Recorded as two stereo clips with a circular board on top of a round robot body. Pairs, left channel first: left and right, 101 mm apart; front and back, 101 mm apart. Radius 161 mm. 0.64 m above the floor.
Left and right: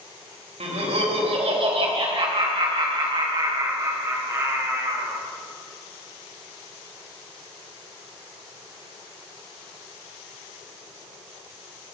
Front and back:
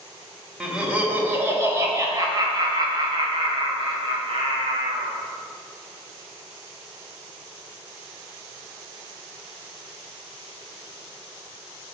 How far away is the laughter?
About 3 m.